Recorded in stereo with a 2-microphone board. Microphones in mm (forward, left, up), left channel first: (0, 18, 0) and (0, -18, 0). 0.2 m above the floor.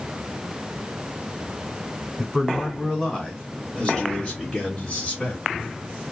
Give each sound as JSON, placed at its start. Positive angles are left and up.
{"t": 2.2, "sound": "a man speaking", "side_deg": 5, "distance_m": 1.6}